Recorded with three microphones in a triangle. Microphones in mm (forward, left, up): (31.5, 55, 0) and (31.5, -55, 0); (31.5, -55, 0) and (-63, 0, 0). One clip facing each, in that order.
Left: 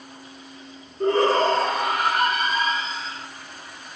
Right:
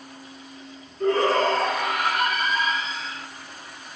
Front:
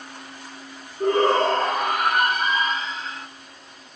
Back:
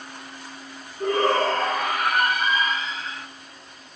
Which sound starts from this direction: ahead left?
A shout, at 1.0 s.